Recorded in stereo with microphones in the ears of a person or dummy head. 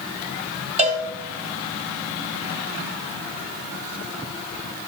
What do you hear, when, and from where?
0.8 s a cowbell: 30° right (ahead or behind), 1.3 m